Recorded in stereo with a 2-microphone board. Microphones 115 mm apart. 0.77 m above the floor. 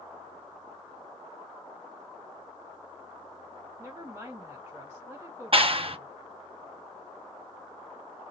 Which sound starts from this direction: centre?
A woman speaking, at 3.8 s.